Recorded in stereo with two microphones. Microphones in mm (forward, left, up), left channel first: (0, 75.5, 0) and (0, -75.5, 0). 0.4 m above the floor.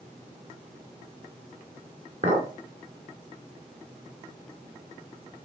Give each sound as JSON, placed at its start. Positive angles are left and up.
{"t": 2.2, "sound": "a clink", "side_deg": -55, "distance_m": 2.5}